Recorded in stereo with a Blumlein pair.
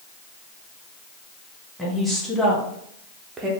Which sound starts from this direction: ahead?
A woman speaking, at 1.8 s.